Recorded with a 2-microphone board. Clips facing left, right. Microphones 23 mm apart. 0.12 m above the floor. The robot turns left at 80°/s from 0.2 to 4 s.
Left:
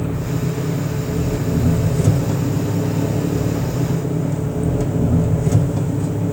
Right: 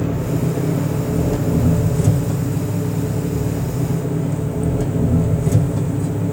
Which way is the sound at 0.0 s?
35° right.